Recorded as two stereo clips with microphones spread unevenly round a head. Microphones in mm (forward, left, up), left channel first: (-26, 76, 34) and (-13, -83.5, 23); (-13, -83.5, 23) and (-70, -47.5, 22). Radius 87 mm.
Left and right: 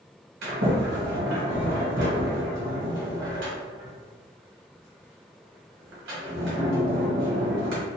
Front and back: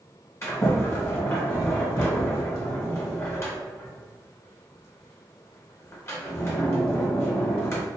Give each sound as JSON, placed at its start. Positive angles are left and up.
{"t": 0.4, "sound": "a sliding door", "azimuth_deg": -85, "distance_m": 1.2}